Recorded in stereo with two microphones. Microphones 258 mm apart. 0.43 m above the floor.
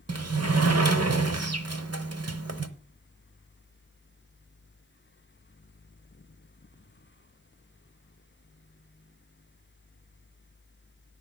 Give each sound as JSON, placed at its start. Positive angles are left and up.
{"t": 0.1, "sound": "a sliding door", "side_deg": -70, "distance_m": 0.9}